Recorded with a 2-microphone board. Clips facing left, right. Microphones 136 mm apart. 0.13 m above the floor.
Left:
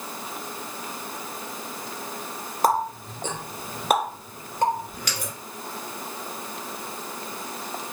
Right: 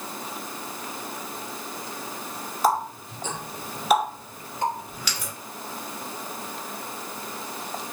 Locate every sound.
2.6 s a running tap: 50° left (ahead or behind), 1.4 m